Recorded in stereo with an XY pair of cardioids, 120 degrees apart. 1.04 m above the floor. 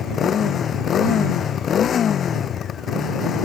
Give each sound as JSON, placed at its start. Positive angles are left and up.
{"t": 0.0, "sound": "a motorcycle", "azimuth_deg": 45}